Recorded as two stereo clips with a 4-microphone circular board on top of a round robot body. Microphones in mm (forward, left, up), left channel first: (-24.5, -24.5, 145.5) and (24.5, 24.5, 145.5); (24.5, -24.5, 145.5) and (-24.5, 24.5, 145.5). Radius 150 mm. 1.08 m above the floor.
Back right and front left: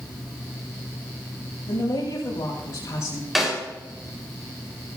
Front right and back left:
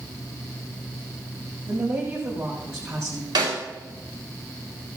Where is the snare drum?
130° left, 3.5 m.